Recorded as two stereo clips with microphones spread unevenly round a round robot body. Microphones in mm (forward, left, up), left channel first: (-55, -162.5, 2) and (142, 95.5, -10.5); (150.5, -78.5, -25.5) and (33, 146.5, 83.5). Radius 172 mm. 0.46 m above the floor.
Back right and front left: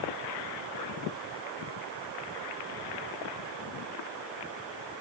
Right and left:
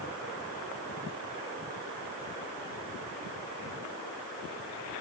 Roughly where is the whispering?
No whispering in this recording.